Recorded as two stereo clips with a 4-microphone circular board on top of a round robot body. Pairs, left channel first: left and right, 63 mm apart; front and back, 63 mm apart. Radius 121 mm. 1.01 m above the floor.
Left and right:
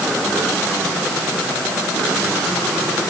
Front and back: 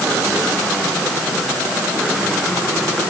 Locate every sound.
Only background noise.